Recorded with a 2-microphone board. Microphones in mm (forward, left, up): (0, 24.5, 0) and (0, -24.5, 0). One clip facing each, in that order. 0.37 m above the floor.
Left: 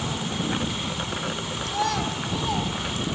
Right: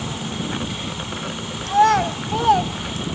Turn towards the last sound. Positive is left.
turn(degrees=-65)  # may be behind; listen again after turning